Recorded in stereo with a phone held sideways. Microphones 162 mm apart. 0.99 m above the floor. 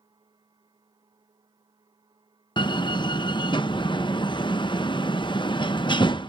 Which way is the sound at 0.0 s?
25° right (ahead or behind).